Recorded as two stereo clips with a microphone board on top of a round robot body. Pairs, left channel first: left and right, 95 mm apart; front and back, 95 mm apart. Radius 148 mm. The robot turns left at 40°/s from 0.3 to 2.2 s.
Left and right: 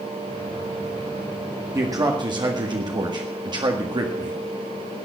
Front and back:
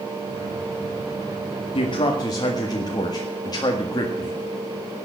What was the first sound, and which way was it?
A man speaking, 30° right.